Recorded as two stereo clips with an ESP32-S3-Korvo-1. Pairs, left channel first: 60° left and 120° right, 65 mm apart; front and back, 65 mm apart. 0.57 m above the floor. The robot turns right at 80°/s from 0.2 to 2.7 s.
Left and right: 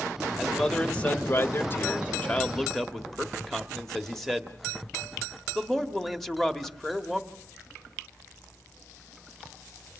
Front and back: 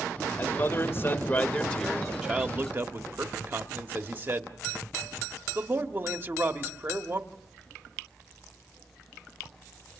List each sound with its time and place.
0.4 s a man speaking: 40° right, 1.5 m; by 7.2 s 145° left, 1.5 m